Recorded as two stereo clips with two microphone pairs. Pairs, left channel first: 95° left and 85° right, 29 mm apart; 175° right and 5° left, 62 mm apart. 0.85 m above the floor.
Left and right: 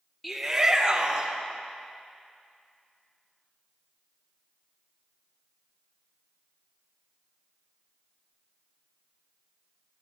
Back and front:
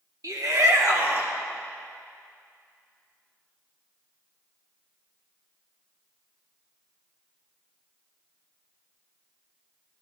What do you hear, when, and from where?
0.2 s a shout: 5° left, 1.2 m; by 1.4 s 40° right, 2.0 m